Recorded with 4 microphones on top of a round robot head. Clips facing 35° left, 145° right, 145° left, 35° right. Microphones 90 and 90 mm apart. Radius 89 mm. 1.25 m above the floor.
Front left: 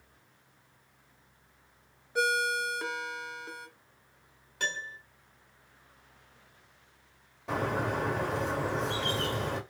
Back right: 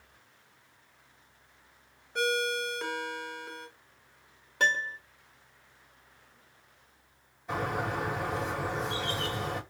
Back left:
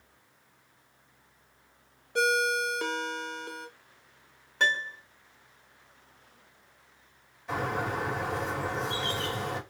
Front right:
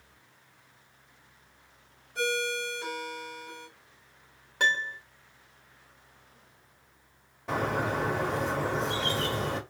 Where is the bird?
10° left, 1.7 m.